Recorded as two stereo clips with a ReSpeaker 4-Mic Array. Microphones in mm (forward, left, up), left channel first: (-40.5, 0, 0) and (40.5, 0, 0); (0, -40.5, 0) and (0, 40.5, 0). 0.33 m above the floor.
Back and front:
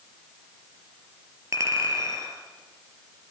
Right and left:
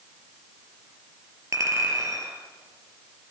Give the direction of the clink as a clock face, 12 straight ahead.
10 o'clock.